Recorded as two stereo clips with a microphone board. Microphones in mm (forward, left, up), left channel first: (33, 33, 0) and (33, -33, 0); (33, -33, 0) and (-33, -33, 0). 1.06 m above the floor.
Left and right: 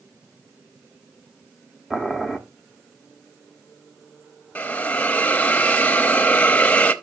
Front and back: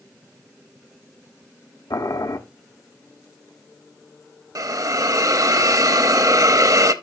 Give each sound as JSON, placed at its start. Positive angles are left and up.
{"t": 1.9, "sound": "boiling", "azimuth_deg": -5, "distance_m": 1.1}
{"t": 4.5, "sound": "a hiss", "azimuth_deg": 155, "distance_m": 0.8}